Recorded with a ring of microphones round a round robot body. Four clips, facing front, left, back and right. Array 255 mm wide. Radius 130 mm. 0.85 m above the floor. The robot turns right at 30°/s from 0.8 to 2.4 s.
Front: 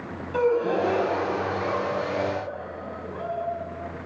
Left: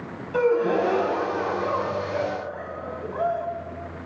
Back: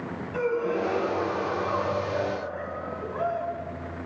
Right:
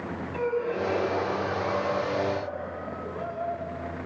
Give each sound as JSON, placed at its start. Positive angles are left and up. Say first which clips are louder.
{"t": 0.3, "sound": "a gasp", "louder": "left 8 dB, front 4 dB", "azimuth_deg": 55, "distance_m": 5.0}